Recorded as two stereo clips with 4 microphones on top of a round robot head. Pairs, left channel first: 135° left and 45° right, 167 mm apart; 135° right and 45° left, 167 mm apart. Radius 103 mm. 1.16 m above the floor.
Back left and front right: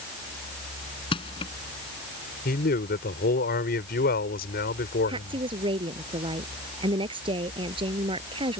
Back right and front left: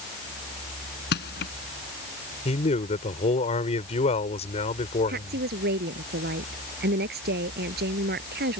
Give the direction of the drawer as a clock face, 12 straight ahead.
No drawer in this recording.